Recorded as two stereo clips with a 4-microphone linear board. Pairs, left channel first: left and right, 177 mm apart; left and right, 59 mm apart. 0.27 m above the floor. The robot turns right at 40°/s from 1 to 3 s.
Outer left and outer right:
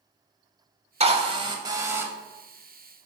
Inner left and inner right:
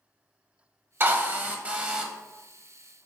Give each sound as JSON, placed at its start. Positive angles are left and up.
{"t": 1.0, "sound": "a drill", "azimuth_deg": -60, "distance_m": 0.7}